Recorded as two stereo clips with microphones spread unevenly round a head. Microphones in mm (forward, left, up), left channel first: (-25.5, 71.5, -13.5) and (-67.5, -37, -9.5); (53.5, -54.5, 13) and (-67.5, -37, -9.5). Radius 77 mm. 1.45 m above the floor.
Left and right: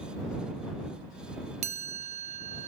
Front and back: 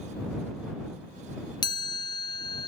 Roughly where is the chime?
Ahead right.